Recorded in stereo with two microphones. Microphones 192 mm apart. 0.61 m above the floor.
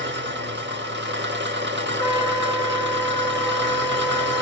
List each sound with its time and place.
0.0 s an engine running: 65° right (ahead or behind), 0.8 m
2.0 s a trumpet: 15° right (ahead or behind), 1.1 m